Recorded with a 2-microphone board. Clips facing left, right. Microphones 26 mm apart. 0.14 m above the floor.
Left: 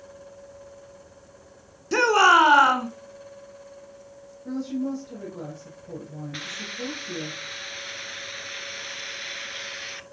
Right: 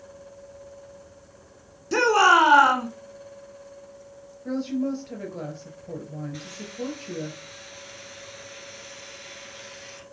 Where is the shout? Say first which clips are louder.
Left 1 dB; 10° left (ahead or behind), 1.3 m.